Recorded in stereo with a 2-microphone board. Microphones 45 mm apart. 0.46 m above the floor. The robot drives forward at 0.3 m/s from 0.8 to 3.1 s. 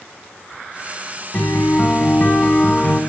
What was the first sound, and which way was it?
A guitar, 30° left (ahead or behind).